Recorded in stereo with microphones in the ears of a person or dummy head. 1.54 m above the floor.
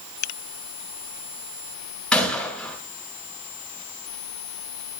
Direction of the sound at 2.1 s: 10° left (ahead or behind).